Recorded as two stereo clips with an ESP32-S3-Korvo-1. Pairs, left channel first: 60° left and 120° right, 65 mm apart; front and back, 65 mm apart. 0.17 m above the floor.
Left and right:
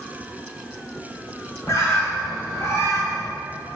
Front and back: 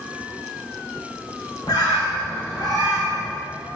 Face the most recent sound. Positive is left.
turn(degrees=20)